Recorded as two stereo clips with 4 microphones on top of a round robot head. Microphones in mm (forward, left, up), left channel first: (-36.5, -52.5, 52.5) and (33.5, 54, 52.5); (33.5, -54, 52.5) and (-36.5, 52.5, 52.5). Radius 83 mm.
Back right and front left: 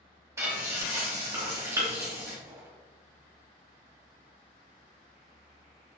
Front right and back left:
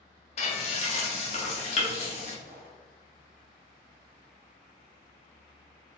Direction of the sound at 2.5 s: 115° left.